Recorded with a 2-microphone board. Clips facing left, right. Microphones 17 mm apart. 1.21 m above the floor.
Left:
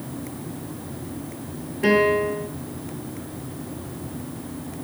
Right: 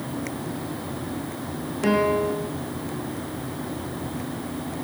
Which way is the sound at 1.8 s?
15° left (ahead or behind).